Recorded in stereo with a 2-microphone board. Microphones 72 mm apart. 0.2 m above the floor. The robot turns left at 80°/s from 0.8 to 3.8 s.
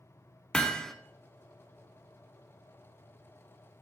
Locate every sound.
0.5 s hammering: 10° left (ahead or behind), 0.6 m; by 0.9 s centre (ahead or behind), 0.6 m